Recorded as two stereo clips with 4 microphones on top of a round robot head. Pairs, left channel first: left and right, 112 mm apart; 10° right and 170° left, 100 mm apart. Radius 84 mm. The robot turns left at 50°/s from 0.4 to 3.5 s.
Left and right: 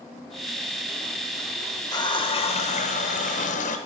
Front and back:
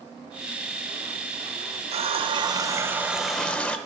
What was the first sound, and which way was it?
A running tap, 150° left.